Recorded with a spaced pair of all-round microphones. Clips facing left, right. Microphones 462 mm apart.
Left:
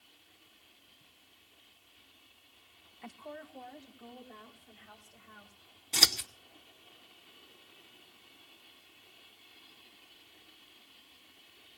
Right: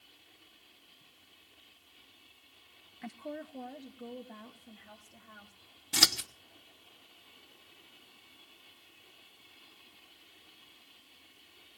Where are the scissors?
30° right (ahead or behind), 1.0 m.